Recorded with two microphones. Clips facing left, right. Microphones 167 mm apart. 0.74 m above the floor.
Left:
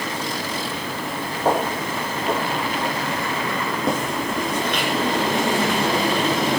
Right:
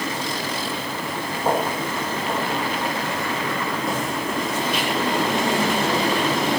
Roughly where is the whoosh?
No whoosh in this recording.